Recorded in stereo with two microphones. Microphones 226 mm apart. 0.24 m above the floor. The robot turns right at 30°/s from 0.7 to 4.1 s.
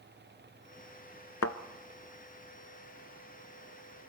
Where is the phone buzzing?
No phone buzzing in this recording.